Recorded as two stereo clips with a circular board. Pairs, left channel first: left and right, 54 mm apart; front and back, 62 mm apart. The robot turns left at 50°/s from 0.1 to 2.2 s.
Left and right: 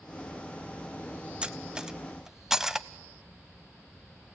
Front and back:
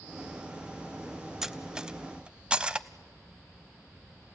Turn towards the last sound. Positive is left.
turn(degrees=-150)